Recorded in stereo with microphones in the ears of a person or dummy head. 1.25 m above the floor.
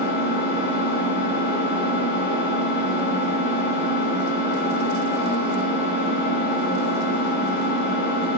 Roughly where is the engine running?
Left.